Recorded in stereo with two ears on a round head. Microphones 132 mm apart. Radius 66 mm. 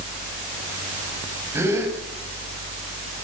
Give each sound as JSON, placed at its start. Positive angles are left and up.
{"t": 1.5, "sound": "a gasp", "side_deg": -15, "distance_m": 7.5}